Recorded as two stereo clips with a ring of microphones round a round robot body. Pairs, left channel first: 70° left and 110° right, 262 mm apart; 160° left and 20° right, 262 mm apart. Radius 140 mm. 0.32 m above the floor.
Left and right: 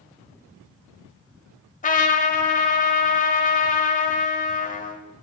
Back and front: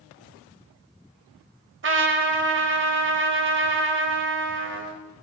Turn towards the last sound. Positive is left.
turn(degrees=10)